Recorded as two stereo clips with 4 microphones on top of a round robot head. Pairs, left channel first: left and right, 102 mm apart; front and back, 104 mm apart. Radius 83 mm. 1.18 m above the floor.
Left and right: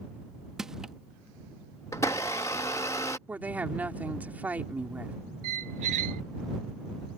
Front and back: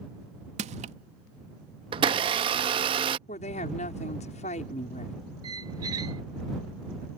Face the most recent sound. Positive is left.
turn(degrees=-110)